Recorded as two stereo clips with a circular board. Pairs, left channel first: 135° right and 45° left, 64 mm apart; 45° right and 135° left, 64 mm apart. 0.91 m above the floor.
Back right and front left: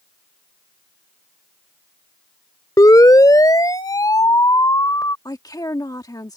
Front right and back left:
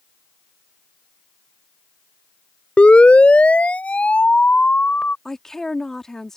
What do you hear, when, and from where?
2.8 s a siren: 115° right
5.2 s a woman speaking: 125° right